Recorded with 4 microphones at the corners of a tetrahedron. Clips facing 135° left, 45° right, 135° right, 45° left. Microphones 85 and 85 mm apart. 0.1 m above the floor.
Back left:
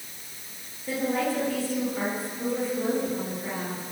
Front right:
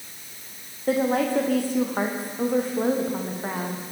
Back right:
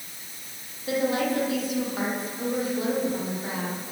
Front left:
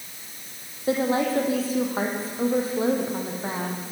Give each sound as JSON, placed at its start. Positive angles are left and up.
{"t": 0.9, "sound": "a woman speaking", "azimuth_deg": -15, "distance_m": 6.0}